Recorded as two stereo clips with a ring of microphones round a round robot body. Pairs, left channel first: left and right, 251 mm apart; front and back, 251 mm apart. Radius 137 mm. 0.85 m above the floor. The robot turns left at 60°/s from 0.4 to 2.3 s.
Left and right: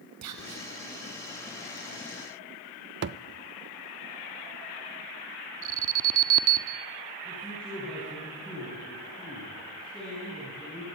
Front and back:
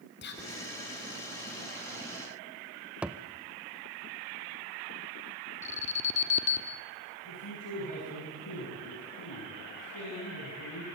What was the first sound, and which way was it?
Whispering, 55° right.